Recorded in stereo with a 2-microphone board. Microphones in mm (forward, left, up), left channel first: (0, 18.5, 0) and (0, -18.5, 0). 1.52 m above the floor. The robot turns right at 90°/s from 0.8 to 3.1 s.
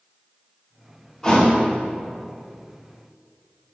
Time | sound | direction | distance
1.2 | a thud | 15° left (ahead or behind) | 1.4 m